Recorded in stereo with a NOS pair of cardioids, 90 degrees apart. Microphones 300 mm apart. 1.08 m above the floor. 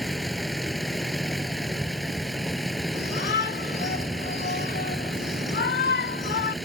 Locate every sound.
0.0 s a vehicle: straight ahead
2.9 s a shout: 35° left